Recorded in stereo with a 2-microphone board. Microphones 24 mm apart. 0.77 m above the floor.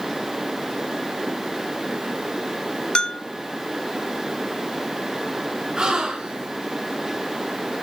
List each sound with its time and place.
3.0 s a bell: 35° left (ahead or behind), 1.0 m
5.8 s a gasp: 30° right (ahead or behind), 4.5 m